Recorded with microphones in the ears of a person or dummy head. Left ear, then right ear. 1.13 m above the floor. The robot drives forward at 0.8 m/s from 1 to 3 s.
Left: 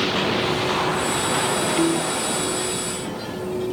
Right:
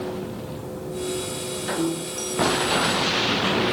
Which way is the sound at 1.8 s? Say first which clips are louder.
Left 6 dB; 30° left (ahead or behind).